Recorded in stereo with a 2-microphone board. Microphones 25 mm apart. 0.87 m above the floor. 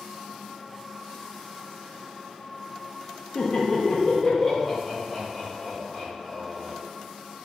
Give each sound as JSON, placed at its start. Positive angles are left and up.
{"t": 3.4, "sound": "laughter", "side_deg": 45, "distance_m": 0.6}